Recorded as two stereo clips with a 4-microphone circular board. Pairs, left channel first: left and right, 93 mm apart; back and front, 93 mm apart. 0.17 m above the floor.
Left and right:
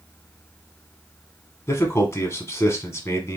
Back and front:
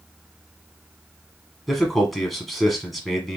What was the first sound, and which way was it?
A man speaking, 90° left.